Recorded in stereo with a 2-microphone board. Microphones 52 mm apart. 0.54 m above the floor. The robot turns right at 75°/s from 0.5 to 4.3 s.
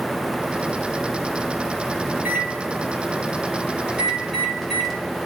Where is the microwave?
20° right (ahead or behind), 2 m; by 5.0 s 5° left (ahead or behind), 2 m.